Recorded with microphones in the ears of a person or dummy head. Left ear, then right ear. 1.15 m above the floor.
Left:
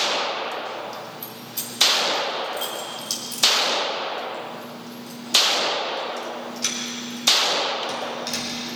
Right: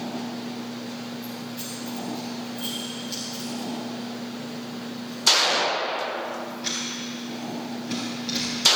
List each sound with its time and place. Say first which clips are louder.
1.2 s keys jangling: even; 50° left (ahead or behind), 4 m; by 8.5 s 80° left, 6 m